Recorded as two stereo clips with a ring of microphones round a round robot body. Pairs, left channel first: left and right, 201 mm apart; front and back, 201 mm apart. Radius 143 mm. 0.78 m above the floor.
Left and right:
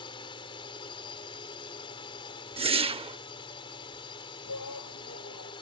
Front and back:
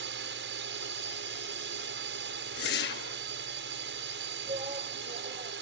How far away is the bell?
I don't hear a bell.